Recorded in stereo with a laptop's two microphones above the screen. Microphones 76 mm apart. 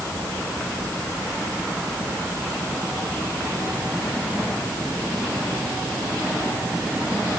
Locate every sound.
Only background noise.